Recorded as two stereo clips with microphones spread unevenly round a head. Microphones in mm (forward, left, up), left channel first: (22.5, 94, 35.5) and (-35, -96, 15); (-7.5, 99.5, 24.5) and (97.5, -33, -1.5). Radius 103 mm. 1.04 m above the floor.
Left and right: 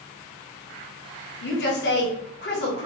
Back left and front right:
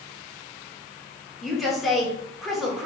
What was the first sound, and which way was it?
A woman speaking, 35° left.